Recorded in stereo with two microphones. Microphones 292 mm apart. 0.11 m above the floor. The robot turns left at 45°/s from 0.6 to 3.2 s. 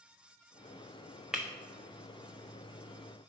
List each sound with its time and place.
1.3 s breaking glass: centre (ahead or behind), 0.9 m; by 1.5 s 5° left (ahead or behind), 0.9 m